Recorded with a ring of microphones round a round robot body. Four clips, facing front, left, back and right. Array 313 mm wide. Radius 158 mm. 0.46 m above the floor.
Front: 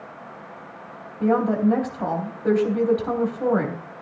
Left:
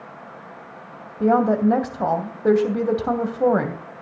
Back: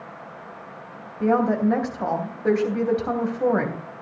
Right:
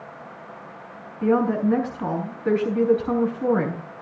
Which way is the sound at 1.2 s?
95° left.